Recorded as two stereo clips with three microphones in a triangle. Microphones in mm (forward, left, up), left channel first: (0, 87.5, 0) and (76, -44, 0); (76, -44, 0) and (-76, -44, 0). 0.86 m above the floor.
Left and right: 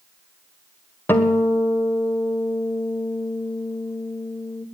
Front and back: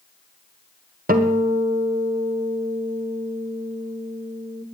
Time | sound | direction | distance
1.1 | a guitar | 165° right | 1.3 m